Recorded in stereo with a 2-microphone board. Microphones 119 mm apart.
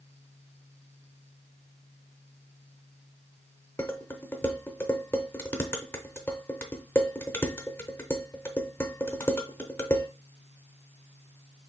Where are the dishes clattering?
15° left (ahead or behind), 0.7 m.